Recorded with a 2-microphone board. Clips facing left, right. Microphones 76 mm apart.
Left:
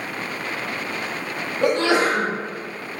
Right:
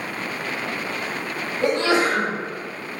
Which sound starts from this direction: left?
A sneeze, at 1.6 s.